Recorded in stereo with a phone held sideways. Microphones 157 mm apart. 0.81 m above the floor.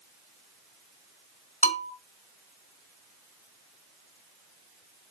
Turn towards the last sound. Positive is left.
turn(degrees=45)  # may be behind; listen again after turning